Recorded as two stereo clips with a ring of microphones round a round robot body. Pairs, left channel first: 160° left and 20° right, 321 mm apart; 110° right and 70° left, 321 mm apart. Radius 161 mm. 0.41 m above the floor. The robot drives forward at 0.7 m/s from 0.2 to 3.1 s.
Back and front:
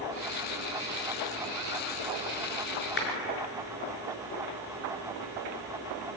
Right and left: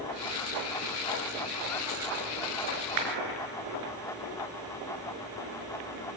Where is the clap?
100° left, 6.5 m.